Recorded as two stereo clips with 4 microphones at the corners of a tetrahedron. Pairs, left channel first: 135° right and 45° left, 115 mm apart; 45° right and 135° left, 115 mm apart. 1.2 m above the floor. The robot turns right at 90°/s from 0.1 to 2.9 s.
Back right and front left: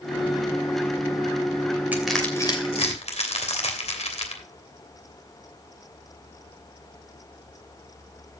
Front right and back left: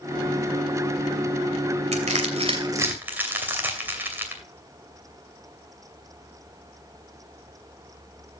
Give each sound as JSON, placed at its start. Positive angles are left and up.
{"t": 1.9, "sound": "crushing", "azimuth_deg": 120, "distance_m": 2.5}